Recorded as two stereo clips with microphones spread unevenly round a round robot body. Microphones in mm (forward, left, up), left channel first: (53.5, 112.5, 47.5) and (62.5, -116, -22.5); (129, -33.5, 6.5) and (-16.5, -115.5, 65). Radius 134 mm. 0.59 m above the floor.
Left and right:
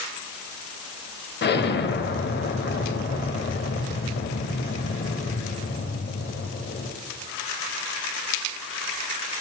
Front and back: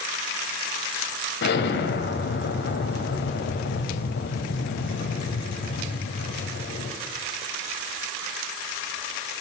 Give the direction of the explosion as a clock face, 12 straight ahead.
11 o'clock.